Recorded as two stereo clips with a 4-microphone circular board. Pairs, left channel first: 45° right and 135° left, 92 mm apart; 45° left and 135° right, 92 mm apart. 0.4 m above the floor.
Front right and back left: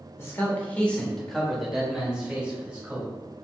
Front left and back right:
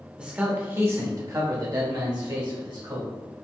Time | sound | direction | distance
0.2 | a man speaking | 65° right | 0.8 m